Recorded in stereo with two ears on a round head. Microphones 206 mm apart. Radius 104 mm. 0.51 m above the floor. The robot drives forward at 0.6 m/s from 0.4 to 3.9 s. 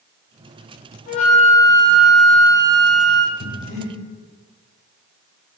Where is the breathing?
40° left (ahead or behind), 0.6 m; by 3.9 s 25° left (ahead or behind), 0.8 m.